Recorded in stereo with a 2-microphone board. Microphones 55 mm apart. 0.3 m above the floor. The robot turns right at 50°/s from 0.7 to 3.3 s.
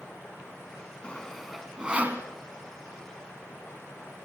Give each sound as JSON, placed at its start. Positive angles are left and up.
{"t": 1.0, "sound": "sawing", "side_deg": 20, "distance_m": 2.0}